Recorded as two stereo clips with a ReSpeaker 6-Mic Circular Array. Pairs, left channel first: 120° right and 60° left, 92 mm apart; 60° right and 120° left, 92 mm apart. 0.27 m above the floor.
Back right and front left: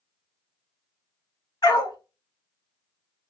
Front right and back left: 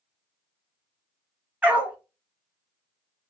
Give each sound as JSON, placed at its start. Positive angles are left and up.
{"t": 1.6, "sound": "a dog barking", "azimuth_deg": -165, "distance_m": 1.3}